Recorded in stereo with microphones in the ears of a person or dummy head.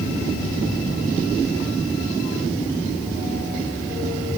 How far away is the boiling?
I don't hear boiling.